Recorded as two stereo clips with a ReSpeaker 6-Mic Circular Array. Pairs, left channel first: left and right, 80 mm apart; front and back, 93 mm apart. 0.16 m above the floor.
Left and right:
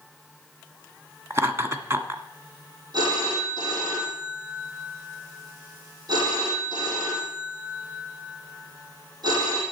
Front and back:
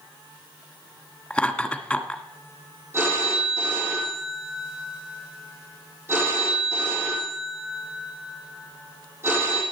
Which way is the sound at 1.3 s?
70° right.